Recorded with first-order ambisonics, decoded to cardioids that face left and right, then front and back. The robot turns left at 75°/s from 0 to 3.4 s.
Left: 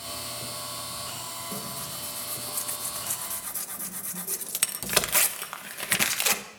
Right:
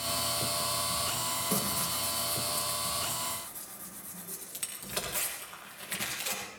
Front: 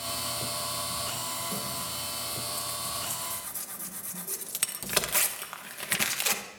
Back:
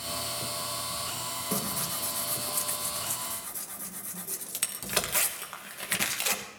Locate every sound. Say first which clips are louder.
1.5 s tearing paper: right 4 dB, back 1 dB; 140° right, 1.0 m; by 6.4 s 80° left, 1.0 m